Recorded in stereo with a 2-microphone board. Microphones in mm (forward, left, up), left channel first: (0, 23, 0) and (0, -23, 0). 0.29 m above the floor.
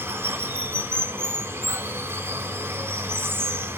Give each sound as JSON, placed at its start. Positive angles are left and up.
{"t": 0.0, "sound": "running water", "side_deg": -60, "distance_m": 1.6}